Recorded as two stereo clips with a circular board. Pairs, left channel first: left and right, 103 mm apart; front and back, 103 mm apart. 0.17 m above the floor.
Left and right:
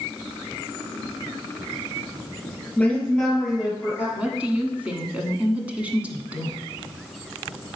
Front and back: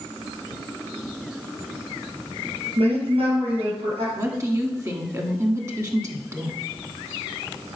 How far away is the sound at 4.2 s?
About 1.3 m.